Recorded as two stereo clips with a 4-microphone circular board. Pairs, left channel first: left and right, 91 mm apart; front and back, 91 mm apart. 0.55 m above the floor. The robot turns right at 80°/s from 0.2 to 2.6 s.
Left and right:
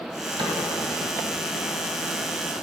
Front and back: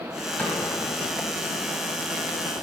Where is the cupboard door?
75° right, 1.8 m; by 0.7 s 50° right, 1.8 m.